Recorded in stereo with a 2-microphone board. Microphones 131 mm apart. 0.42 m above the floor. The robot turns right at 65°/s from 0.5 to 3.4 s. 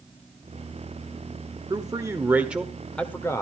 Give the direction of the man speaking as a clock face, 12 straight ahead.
2 o'clock.